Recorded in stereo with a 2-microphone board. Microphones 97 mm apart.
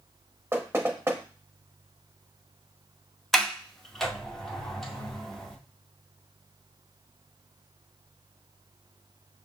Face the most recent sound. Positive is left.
turn(degrees=5)  # may be behind; listen again after turning